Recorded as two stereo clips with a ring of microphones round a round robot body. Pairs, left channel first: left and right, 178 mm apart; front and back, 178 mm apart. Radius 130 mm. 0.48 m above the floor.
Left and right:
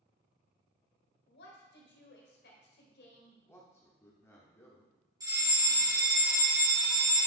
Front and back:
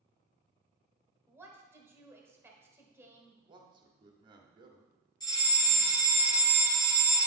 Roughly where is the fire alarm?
Ahead right.